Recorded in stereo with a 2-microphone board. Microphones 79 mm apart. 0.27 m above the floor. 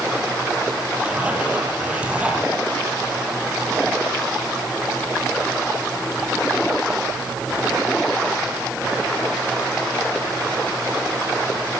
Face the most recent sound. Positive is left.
turn(degrees=-15)  # may be behind; listen again after turning